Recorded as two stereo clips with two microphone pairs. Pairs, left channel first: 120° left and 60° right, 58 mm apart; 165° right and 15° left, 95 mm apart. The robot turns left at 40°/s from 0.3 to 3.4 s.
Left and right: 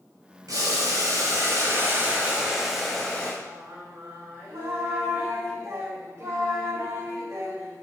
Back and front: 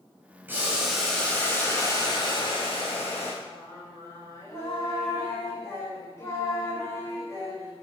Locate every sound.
0.5 s boiling: 55° right, 2.5 m; by 3.3 s 170° right, 2.5 m
3.4 s singing: 105° right, 3 m